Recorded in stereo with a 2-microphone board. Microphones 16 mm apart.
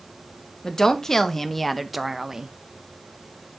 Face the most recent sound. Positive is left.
turn(degrees=-35)  # may be behind; listen again after turning